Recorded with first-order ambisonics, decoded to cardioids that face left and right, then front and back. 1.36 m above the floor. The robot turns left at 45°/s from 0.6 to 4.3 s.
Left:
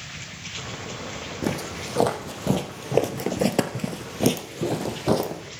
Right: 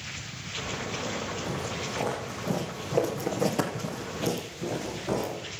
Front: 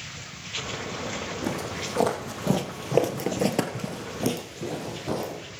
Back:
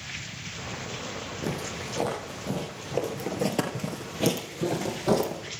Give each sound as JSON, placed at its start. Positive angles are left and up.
{"t": 1.4, "sound": "footsteps", "azimuth_deg": 90, "distance_m": 3.5}